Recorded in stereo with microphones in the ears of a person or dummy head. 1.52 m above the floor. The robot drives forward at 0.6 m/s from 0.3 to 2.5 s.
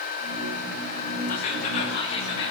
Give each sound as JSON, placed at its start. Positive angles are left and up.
{"t": 1.3, "sound": "whispering", "side_deg": 50, "distance_m": 1.3}